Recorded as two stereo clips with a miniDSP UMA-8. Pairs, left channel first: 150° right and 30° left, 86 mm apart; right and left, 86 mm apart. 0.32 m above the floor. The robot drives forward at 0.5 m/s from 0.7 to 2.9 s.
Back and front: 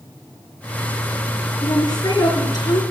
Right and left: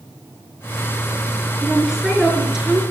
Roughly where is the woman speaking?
Behind.